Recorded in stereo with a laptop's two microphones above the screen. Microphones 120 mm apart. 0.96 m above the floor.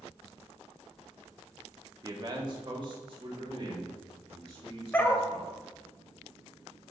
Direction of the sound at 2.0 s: 30° right (ahead or behind).